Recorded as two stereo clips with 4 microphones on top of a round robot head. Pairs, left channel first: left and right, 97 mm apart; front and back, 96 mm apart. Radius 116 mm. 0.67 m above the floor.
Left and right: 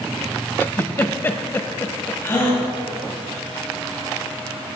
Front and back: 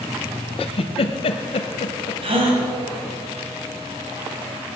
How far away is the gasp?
About 4 m.